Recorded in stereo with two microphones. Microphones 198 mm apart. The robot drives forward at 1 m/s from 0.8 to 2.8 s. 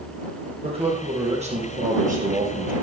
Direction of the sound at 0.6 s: 30° right (ahead or behind).